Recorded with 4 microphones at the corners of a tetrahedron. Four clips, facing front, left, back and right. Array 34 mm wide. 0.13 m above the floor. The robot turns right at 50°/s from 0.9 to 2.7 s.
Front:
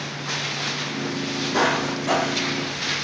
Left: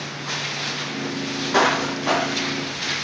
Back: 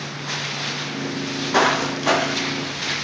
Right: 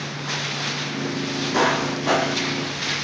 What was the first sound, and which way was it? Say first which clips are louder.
Footsteps: left 2 dB, back 4 dB; 115° left.